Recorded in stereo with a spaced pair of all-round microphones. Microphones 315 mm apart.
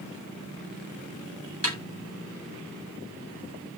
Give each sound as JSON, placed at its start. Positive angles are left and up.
{"t": 1.6, "sound": "a snare drum", "side_deg": -50, "distance_m": 9.0}